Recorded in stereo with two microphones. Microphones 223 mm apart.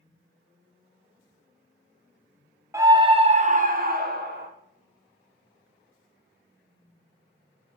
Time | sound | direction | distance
2.7 | a scream | 15° right (ahead or behind) | 0.6 m